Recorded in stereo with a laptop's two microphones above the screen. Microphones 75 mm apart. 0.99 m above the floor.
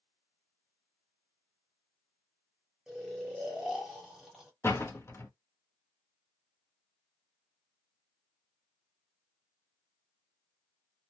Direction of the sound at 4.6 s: 35° left (ahead or behind).